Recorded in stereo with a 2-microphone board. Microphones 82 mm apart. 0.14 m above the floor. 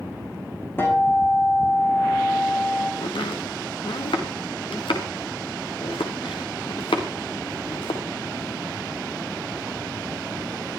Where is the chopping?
85° left, 3.5 m.